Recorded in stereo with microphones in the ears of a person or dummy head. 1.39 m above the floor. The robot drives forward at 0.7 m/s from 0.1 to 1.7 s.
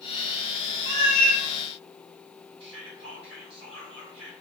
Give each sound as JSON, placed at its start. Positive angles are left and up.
{"t": 0.8, "sound": "a cat meowing", "side_deg": -55, "distance_m": 1.4}
{"t": 2.6, "sound": "whispering", "side_deg": -20, "distance_m": 0.7}